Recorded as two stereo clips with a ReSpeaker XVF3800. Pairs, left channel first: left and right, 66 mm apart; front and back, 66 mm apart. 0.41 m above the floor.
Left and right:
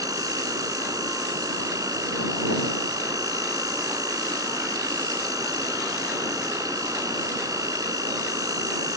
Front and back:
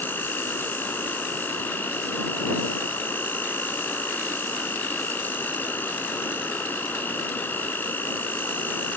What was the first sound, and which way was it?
An insect, 60° right.